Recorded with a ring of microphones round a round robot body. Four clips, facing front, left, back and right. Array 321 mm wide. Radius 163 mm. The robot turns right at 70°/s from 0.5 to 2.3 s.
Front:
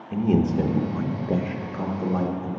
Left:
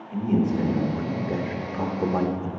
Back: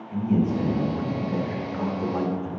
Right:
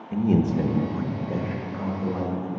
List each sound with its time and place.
0.1 s a man speaking: 35° right, 0.9 m; by 2.5 s 90° left, 0.9 m